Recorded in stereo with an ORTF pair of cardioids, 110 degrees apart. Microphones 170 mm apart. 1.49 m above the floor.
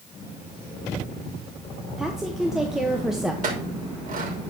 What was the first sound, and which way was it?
A woman speaking, 5° right.